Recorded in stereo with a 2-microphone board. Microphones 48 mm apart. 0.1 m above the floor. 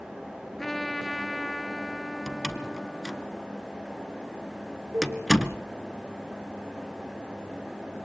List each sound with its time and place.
0.6 s a trumpet: 5° left (ahead or behind), 0.6 m
2.3 s a door slam: 5° right (ahead or behind), 1.2 m
4.9 s a cowbell: 75° right (ahead or behind), 9.5 m